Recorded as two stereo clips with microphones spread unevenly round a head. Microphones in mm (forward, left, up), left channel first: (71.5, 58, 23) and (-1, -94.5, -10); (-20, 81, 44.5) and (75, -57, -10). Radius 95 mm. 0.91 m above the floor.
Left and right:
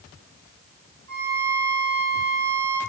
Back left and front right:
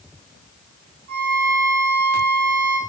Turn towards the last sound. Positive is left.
turn(degrees=-155)